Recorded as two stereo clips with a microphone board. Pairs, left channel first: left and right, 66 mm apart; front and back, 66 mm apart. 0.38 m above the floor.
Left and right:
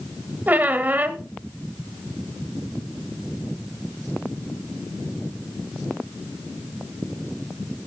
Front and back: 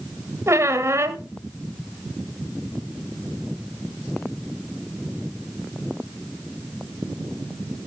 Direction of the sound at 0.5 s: 150° right.